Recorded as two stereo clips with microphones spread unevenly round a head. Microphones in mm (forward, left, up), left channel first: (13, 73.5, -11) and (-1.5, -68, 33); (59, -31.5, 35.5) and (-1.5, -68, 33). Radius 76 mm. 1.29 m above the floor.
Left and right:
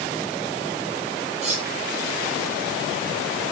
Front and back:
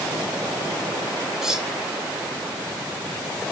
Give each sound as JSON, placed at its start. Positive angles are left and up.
{"t": 1.4, "sound": "cutlery clinking", "azimuth_deg": -65, "distance_m": 1.3}